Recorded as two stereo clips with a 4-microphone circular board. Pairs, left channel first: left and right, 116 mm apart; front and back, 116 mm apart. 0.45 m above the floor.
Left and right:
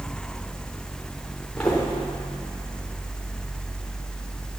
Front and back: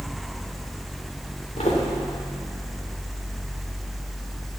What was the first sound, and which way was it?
Footsteps, 5° left.